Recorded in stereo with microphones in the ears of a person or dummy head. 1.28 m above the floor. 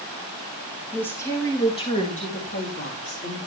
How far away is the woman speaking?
About 1.9 m.